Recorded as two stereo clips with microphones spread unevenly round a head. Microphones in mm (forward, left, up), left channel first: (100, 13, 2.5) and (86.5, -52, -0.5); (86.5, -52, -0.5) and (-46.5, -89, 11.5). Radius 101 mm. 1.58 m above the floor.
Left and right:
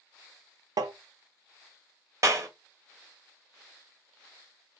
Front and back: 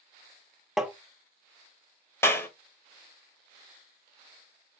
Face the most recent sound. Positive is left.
turn(degrees=-60)